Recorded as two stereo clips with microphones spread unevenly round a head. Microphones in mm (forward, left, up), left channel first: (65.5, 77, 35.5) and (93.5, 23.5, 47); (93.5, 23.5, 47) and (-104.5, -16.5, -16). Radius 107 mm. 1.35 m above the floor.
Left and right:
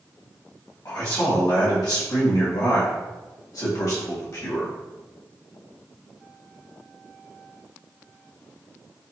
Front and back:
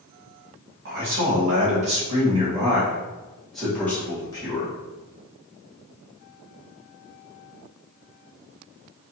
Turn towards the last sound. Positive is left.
turn(degrees=85)